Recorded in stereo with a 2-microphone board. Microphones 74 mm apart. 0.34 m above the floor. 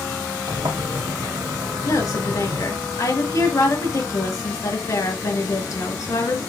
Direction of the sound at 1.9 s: 45° left (ahead or behind).